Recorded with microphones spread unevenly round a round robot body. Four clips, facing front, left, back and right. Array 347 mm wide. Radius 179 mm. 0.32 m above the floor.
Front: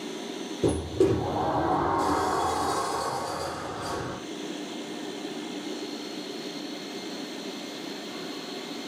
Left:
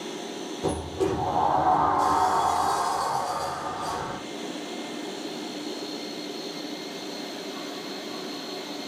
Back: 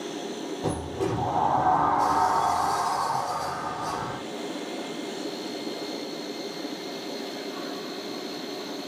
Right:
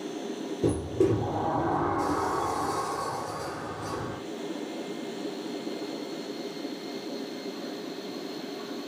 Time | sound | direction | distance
0.6 | a sliding door | 45° right | 4.5 m